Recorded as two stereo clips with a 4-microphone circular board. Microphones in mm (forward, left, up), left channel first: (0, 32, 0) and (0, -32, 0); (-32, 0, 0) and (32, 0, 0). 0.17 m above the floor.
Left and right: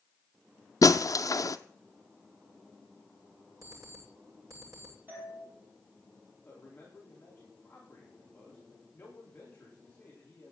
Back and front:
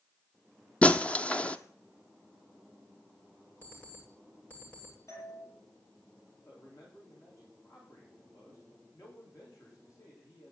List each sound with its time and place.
0.8 s breaking glass: 110° left, 0.7 m
3.6 s an alarm clock: 115° right, 8.5 m
5.1 s a doorbell: 145° right, 6.5 m
6.5 s a man speaking: 155° left, 9.5 m